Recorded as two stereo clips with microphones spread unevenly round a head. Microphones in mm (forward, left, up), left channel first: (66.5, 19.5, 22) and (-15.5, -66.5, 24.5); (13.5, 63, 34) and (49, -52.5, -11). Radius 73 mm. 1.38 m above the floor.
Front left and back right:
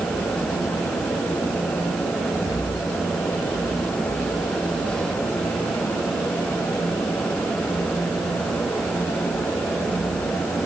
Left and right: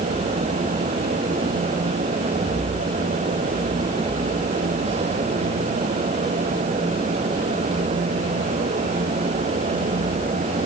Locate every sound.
Only background noise.